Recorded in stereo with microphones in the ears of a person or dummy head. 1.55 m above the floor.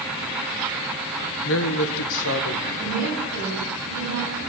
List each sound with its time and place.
1.4 s a man speaking: 65° left (ahead or behind), 1.2 m
2.8 s a woman speaking: 65° left (ahead or behind), 8.5 m